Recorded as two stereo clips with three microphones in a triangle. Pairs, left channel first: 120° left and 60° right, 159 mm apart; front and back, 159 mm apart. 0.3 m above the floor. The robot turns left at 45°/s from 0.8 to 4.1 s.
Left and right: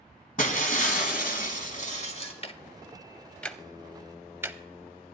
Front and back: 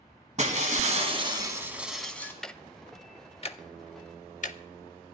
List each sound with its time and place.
0.4 s breaking glass: 145° left, 1.6 m; by 2.3 s 75° left, 1.6 m
2.4 s ticking: 85° left, 0.5 m; by 4.6 s 10° left, 0.5 m